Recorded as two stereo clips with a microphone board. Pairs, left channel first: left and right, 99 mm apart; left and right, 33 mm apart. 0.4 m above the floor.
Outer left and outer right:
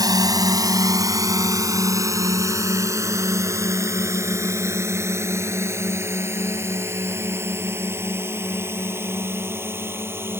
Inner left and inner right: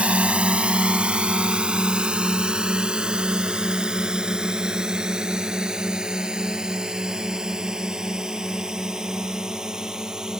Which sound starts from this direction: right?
A drone, at 0.0 s.